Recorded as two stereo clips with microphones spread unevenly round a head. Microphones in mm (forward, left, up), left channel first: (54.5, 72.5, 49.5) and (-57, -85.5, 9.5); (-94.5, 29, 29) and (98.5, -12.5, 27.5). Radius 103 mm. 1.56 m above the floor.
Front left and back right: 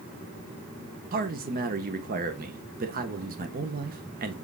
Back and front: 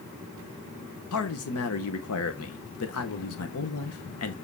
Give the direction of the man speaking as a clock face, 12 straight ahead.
6 o'clock.